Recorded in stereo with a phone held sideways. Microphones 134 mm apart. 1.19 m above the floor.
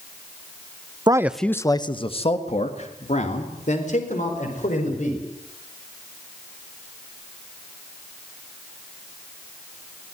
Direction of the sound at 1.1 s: 30° right (ahead or behind).